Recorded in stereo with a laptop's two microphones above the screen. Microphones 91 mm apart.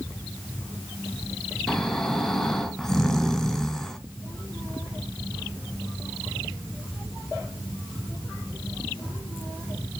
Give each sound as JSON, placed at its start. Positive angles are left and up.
{"t": 1.7, "sound": "snoring", "side_deg": 5, "distance_m": 1.9}